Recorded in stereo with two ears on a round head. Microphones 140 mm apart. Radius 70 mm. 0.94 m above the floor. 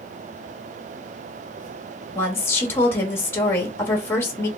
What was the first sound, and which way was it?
A woman speaking, 15° left (ahead or behind).